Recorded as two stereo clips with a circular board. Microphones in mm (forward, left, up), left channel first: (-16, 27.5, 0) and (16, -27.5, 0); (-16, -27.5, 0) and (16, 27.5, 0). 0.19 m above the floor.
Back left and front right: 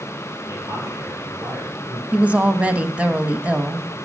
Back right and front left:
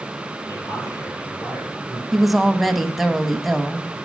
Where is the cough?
I don't hear a cough.